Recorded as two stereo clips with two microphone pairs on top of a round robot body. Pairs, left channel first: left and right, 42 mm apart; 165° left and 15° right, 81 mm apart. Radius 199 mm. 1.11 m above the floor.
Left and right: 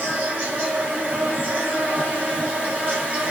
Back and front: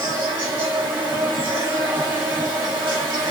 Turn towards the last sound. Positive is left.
turn(degrees=-35)